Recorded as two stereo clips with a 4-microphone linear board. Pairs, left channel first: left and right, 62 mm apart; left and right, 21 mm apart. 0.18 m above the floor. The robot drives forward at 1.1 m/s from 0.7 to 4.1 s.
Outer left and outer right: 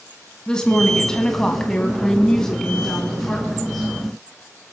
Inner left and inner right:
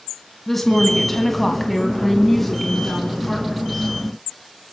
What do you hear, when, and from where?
0.5 s a woman speaking: 10° left (ahead or behind), 1.6 m; by 3.9 s 5° left (ahead or behind), 3 m